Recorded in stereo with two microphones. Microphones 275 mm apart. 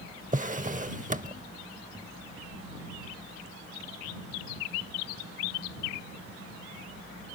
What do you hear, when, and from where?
0.3 s a drawer: 30° right (ahead or behind)